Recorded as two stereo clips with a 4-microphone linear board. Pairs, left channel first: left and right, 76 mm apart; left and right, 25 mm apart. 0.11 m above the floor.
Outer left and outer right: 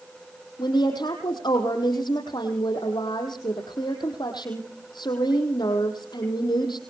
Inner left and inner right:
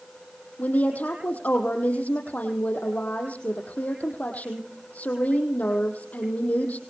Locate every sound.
0.6 s a woman speaking: 70° left (ahead or behind), 4.5 m